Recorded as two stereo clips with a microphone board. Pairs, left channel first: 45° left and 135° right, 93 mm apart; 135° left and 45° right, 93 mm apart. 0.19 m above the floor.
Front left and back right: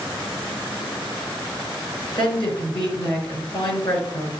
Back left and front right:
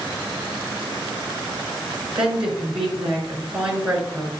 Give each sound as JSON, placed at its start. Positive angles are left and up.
{"t": 2.1, "sound": "a woman speaking", "azimuth_deg": 35, "distance_m": 3.0}